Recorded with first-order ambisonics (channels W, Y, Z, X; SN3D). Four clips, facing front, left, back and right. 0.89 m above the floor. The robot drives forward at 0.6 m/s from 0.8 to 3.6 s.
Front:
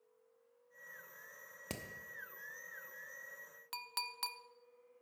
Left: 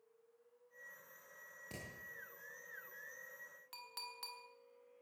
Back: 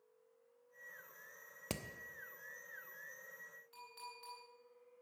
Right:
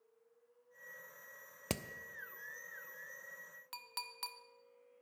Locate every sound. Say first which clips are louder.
1.7 s hammering: right 11 dB, back 2 dB; 100° right, 0.8 m; by 1.8 s 105° right, 0.8 m
3.7 s a clink: right 4 dB, front 13 dB; 20° right, 0.8 m